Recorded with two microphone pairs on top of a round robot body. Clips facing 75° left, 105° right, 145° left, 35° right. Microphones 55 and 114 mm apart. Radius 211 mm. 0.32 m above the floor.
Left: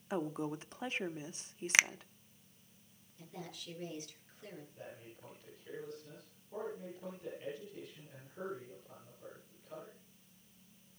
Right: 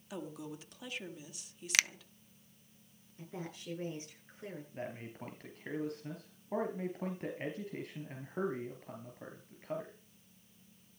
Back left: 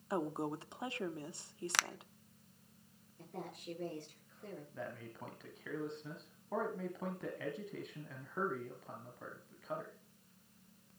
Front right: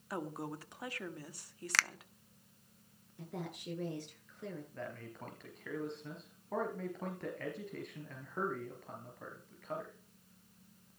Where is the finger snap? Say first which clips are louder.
Left 3 dB, front right 2 dB; 105° left, 0.7 m.